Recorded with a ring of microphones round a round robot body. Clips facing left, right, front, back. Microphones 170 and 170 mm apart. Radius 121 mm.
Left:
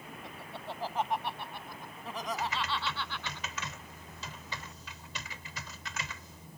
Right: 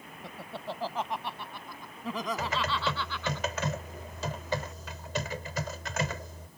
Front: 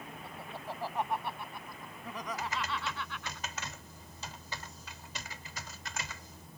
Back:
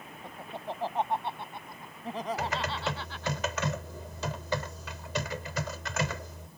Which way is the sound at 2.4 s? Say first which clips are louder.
Right 4 dB, back 5 dB; 145° right.